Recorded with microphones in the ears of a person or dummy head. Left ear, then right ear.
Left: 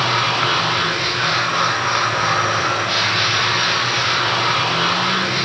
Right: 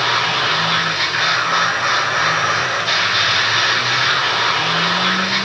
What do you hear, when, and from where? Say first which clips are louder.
0.0 s a machine running: right 1 dB; 45° right (ahead or behind), 1.1 m